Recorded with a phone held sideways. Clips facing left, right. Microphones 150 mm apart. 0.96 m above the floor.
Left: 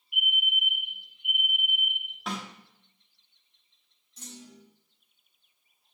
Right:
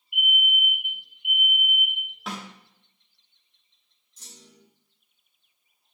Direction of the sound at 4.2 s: 85° left.